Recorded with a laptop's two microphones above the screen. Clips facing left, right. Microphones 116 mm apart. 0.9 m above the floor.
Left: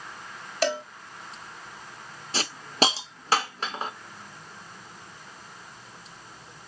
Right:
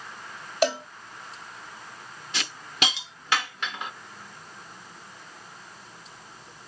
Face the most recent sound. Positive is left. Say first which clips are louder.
# left 6 dB
turn(degrees=35)  # may be behind; listen again after turning